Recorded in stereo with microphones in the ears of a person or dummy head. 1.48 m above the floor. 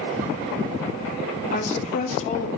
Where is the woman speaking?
40° left (ahead or behind), 1.3 m.